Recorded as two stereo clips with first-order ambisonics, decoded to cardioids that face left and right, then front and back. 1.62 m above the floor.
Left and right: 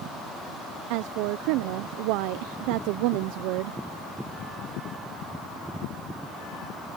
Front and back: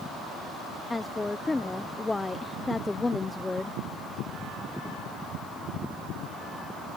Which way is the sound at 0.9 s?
80° right.